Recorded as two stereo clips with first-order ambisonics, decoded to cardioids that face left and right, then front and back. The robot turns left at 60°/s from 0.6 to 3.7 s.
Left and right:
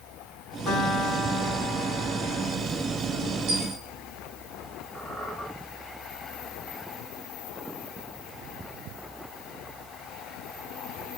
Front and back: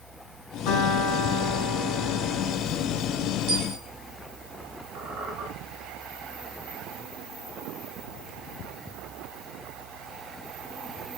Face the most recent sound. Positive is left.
turn(degrees=165)